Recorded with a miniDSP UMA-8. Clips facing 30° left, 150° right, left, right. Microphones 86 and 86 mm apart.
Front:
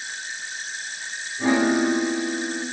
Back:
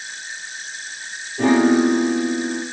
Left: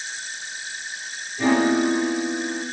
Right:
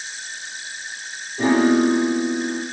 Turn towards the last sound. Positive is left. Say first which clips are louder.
# back 5 dB, right 3 dB
turn(degrees=-140)